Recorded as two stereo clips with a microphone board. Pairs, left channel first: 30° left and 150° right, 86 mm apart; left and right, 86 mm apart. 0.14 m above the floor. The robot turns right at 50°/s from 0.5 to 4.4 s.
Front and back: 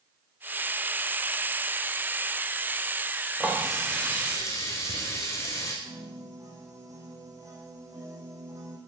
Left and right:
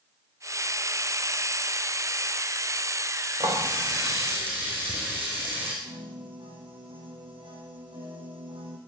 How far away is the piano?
About 5.5 m.